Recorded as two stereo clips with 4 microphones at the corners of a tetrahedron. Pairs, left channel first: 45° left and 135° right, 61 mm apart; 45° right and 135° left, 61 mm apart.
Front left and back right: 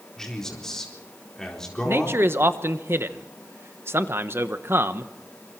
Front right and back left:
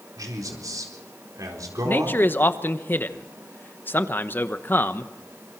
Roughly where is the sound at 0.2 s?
Behind left.